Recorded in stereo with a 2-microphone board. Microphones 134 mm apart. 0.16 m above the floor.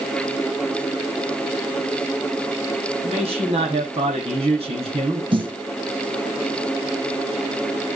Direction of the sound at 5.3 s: 40° right (ahead or behind).